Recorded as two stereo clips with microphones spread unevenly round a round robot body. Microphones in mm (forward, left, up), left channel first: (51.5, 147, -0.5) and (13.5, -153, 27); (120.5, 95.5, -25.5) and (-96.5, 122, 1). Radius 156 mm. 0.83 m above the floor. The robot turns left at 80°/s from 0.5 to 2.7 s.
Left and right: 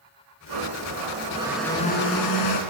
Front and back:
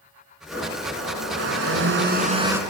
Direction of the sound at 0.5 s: 100° right.